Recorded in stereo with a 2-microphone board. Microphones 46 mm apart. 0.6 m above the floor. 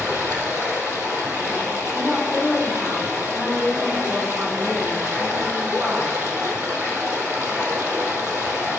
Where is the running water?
70° right (ahead or behind), 2.5 m.